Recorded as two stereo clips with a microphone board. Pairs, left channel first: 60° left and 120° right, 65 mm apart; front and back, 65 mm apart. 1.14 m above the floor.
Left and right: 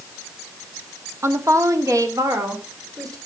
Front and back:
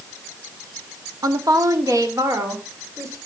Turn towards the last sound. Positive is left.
turn(degrees=-145)